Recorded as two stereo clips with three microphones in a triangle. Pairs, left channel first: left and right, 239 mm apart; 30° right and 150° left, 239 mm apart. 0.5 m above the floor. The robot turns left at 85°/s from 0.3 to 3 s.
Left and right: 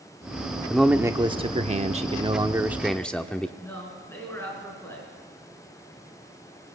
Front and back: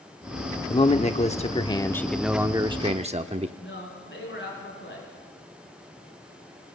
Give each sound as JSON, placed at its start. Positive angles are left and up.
{"t": 0.7, "sound": "a man speaking", "azimuth_deg": 5, "distance_m": 0.8}
{"t": 3.6, "sound": "a man speaking", "azimuth_deg": 10, "distance_m": 7.5}